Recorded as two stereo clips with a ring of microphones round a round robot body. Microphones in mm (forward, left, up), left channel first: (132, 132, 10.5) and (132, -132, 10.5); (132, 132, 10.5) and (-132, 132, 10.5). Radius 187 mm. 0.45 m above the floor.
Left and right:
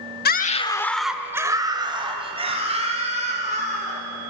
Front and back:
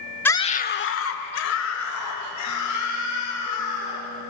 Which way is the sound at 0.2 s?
80° left.